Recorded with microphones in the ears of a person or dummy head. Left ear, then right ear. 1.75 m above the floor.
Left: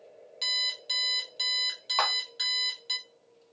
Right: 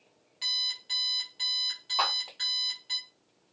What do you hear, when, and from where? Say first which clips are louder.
0.4 s an alarm clock: left 1 dB; 25° left (ahead or behind), 1.6 m
2.0 s a clap: left 1 dB; 65° left (ahead or behind), 1.7 m